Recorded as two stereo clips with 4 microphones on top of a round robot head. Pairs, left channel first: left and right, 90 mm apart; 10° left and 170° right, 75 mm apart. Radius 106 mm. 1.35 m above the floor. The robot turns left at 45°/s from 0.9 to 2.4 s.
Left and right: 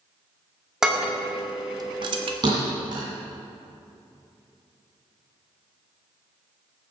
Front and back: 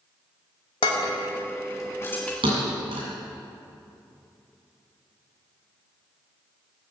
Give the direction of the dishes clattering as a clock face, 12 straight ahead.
12 o'clock.